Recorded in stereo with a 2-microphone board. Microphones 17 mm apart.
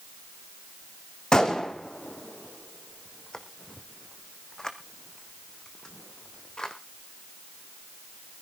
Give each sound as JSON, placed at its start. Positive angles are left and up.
{"t": 1.3, "sound": "a gunshot", "side_deg": 45, "distance_m": 1.4}